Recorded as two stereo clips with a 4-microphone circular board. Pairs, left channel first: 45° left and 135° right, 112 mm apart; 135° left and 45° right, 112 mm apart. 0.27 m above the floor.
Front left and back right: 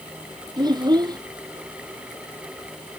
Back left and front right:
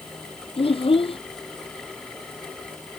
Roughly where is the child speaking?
Behind.